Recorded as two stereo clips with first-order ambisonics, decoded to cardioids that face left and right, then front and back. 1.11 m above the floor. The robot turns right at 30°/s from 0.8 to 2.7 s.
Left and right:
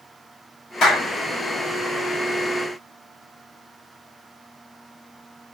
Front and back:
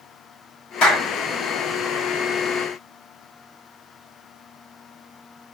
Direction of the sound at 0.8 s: 35° left.